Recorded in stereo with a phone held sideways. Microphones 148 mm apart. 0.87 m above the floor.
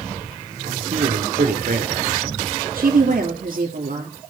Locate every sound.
0.7 s a man speaking: 70° right (ahead or behind), 1.8 m
2.8 s a woman speaking: 70° right (ahead or behind), 2.5 m